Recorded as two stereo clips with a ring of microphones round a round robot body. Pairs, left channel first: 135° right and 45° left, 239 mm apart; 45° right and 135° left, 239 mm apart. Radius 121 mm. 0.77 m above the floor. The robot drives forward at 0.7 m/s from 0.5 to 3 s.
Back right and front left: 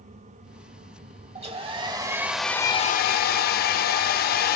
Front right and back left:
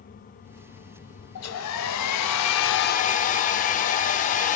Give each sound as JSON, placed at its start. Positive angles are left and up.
{"t": 1.4, "sound": "a hair dryer", "azimuth_deg": -20, "distance_m": 1.2}